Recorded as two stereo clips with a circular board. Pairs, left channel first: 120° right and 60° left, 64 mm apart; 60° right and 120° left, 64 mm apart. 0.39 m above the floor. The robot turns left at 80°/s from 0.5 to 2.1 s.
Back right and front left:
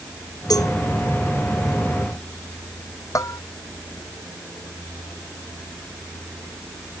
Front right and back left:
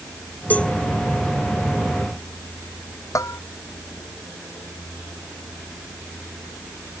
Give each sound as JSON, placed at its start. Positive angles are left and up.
{"t": 0.5, "sound": "a cowbell", "azimuth_deg": -125}
{"t": 3.1, "sound": "a bell", "azimuth_deg": -90}